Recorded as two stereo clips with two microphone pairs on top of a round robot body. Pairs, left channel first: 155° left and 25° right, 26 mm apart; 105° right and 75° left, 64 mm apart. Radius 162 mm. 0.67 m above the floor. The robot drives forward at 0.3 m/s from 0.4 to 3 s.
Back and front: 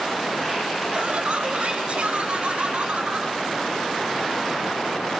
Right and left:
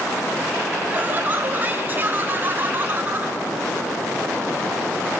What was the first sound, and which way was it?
Laughter, 15° left.